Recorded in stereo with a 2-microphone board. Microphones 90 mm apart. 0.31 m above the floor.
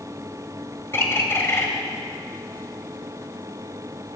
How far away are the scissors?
I don't hear scissors.